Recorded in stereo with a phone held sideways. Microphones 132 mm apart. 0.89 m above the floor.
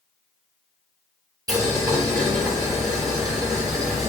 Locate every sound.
1.5 s boiling: 30° right (ahead or behind), 1.7 m